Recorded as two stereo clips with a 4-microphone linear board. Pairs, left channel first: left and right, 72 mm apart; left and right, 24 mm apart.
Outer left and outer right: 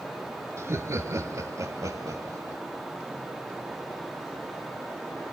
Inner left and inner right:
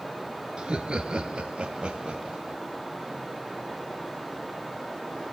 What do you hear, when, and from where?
0.6 s laughter: 40° right (ahead or behind), 2 m; by 2.6 s 45° right (ahead or behind), 4.5 m